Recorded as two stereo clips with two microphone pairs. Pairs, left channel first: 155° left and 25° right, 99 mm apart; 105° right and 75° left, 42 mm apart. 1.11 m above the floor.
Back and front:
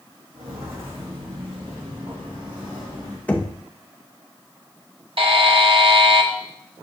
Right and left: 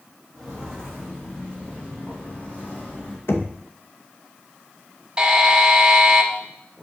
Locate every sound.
0.3 s footsteps: 35° right, 3.5 m; by 3.2 s 70° right, 3 m
3.3 s knocking: 130° right, 0.8 m
5.2 s a buzzer: straight ahead, 0.9 m